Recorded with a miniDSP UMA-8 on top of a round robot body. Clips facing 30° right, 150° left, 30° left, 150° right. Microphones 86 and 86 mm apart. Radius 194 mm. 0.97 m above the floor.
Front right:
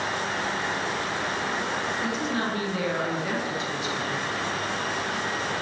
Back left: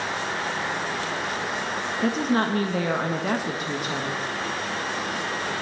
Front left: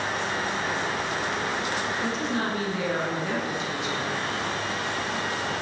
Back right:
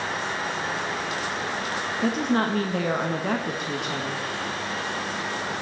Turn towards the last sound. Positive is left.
turn(degrees=-175)